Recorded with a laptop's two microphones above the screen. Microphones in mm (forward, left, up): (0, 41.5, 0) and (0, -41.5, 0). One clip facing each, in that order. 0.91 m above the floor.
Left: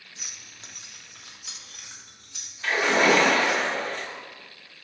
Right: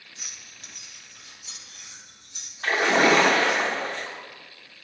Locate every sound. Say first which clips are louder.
0.2 s keys jangling: left 1 dB; centre (ahead or behind), 0.6 m; by 2.5 s 80° left, 1.4 m
2.6 s a splash: right 1 dB; 45° right (ahead or behind), 1.0 m